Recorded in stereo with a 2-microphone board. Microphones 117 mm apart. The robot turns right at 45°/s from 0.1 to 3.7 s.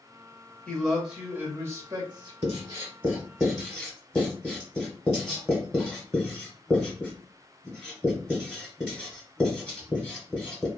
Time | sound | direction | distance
0.7 | a man speaking | 165° left | 1.2 m
2.4 | writing | 45° right (ahead or behind) | 1.1 m